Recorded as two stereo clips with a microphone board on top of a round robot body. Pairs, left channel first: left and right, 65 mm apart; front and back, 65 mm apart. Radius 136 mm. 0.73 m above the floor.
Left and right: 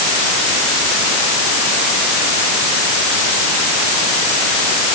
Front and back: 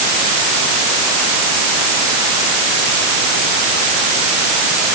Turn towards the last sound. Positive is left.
No sound to turn to.